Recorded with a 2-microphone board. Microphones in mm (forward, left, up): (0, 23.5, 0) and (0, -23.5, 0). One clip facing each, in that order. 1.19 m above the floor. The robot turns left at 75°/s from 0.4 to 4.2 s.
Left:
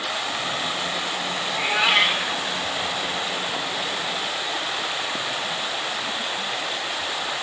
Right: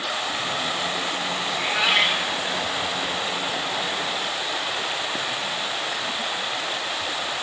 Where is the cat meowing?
20° left (ahead or behind), 0.6 m; by 2.4 s centre (ahead or behind), 0.6 m.